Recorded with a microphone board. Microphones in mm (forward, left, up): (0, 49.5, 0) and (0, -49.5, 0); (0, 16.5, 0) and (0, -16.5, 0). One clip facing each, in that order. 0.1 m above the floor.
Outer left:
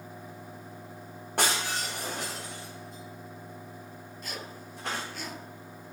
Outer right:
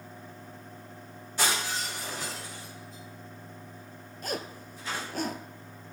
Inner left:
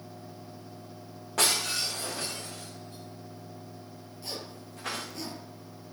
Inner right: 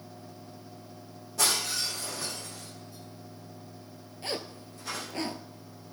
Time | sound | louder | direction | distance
1.4 | breaking glass | outer left 1 dB, inner left 1 dB | 60° left (ahead or behind) | 5.5 m
4.2 | a zipper | outer right 7 dB, inner right 5 dB | 45° right (ahead or behind) | 0.7 m